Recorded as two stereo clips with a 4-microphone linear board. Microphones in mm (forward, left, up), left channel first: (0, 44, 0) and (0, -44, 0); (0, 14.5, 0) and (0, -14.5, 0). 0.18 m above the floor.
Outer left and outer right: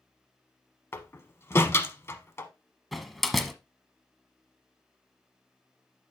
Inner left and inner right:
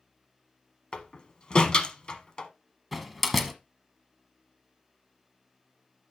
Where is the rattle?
No rattle in this recording.